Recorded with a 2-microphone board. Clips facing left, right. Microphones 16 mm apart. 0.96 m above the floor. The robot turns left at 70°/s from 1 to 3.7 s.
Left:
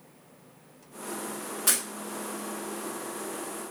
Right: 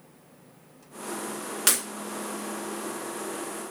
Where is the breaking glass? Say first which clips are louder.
Right 3 dB; 60° right (ahead or behind), 0.8 m; by 1.8 s 70° right (ahead or behind), 0.8 m.